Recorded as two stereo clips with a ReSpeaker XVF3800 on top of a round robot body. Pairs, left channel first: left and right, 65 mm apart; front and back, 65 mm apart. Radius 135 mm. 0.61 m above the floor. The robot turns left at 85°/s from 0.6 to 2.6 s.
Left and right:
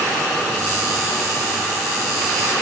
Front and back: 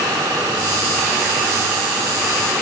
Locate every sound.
Only background noise.